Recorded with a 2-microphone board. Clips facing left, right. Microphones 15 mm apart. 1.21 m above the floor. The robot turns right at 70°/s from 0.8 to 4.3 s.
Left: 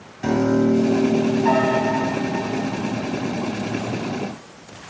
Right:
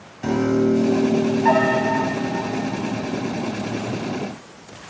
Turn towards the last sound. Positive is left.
turn(degrees=45)